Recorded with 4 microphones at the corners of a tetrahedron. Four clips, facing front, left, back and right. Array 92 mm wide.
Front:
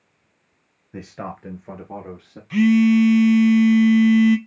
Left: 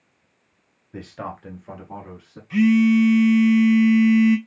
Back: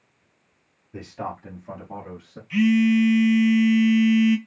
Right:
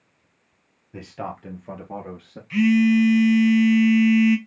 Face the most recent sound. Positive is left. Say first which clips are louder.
# left 1 dB, front 3 dB
turn(degrees=20)